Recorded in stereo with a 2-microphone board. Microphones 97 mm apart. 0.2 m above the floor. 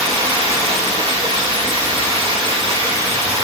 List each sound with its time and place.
0.0 s running water: 85° right, 2 m